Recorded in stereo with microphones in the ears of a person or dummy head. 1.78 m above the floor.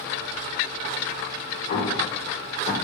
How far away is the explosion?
About 1.9 m.